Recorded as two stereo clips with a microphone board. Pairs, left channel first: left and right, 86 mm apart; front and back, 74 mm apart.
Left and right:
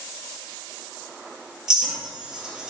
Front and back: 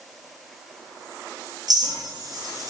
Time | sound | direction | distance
1.7 | a clink | 170° right | 1.9 m